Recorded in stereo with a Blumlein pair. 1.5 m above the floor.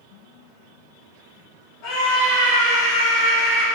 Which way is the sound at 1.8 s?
40° left.